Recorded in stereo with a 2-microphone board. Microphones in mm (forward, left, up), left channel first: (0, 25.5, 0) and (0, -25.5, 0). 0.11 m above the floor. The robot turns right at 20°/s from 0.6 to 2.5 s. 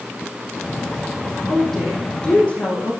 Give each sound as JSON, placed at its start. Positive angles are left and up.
{"t": 1.5, "sound": "a woman speaking", "side_deg": 5, "distance_m": 5.5}